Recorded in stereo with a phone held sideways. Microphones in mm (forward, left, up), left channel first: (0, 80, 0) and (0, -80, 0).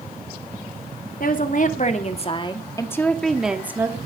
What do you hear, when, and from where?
1.2 s a woman speaking: 65° left (ahead or behind), 2.5 m; by 4.0 s 20° right (ahead or behind), 2 m